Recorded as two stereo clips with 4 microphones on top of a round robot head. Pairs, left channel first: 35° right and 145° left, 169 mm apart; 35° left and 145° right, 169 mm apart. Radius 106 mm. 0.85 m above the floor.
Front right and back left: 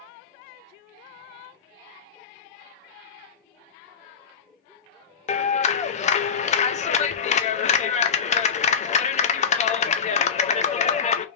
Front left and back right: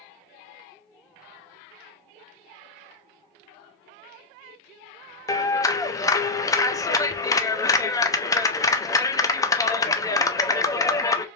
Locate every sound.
5.3 s a clap: 25° right, 0.6 m